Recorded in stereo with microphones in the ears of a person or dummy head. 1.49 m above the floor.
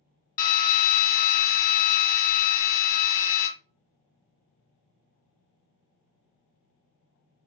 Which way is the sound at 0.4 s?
50° left (ahead or behind).